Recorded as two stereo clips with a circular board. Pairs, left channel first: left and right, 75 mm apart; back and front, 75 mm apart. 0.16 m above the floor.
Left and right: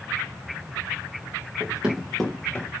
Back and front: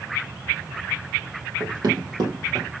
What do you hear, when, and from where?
1.6 s running footsteps: 30° right, 1.4 m; by 2.7 s 30° left, 1.8 m